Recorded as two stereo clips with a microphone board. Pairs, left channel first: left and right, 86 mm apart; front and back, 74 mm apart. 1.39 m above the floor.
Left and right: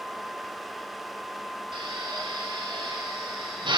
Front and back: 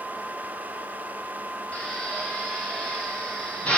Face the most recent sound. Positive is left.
turn(degrees=-75)